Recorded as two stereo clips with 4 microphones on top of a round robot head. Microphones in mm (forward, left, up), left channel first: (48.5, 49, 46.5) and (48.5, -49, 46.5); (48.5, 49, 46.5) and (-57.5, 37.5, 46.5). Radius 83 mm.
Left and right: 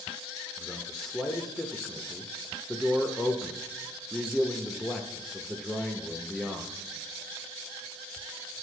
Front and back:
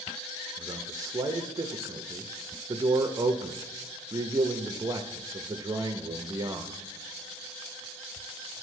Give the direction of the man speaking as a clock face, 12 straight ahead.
6 o'clock.